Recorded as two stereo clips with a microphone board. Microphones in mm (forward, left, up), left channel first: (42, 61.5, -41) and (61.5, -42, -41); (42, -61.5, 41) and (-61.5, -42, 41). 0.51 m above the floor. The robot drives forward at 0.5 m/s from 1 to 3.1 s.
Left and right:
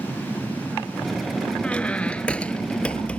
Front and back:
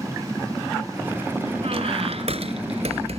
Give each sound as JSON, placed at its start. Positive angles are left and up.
{"t": 1.6, "sound": "a squeak", "azimuth_deg": 180}